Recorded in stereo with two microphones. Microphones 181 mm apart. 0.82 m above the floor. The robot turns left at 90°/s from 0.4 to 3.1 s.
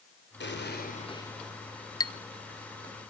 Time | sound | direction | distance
0.4 | an explosion | 95° left | 3 m
2.0 | a clink | 20° left (ahead or behind) | 0.6 m